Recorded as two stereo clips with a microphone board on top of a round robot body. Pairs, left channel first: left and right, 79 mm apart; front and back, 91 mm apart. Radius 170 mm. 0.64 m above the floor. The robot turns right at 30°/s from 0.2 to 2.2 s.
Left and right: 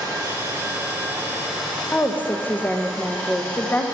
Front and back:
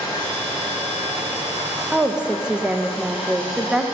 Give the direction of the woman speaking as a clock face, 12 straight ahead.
9 o'clock.